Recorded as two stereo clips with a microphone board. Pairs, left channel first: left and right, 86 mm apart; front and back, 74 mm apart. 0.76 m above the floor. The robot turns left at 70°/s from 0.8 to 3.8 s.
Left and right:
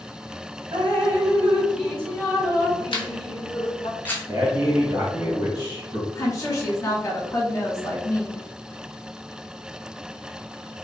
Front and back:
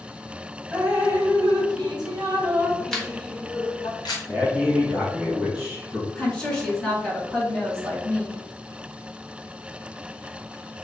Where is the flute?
No flute in this recording.